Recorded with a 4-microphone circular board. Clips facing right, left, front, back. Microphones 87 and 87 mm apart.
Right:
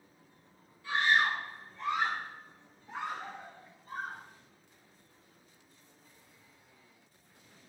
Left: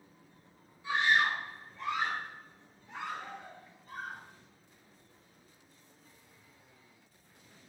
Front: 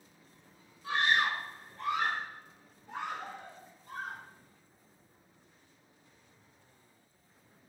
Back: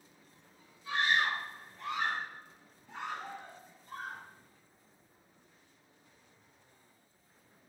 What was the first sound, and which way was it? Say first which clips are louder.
A scream: even, front 2 dB; 20° left.